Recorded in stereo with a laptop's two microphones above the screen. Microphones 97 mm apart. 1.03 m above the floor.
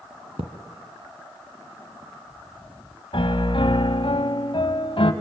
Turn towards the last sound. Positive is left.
turn(degrees=60)  # may be behind; listen again after turning